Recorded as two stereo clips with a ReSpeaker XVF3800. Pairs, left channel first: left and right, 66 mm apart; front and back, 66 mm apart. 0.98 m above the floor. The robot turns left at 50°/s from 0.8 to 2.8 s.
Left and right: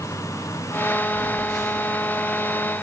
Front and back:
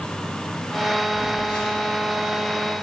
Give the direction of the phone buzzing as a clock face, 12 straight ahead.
9 o'clock.